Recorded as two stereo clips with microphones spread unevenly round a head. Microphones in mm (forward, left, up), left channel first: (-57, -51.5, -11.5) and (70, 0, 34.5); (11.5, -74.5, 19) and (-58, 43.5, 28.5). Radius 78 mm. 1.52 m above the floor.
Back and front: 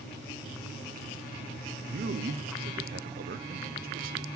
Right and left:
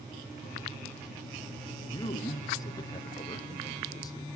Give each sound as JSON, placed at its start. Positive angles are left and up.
{"t": 1.9, "sound": "a man speaking", "azimuth_deg": 5, "distance_m": 0.7}